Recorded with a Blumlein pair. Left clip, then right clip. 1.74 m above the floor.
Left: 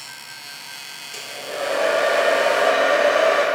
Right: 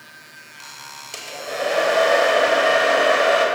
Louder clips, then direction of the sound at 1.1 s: Right 2 dB; 20° right.